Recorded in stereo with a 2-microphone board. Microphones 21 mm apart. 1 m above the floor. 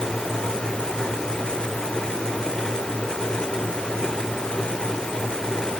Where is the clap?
No clap in this recording.